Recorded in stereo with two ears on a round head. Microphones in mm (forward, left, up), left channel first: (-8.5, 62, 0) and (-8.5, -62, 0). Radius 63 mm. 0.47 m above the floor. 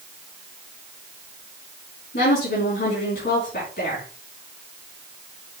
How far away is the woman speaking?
About 4.5 m.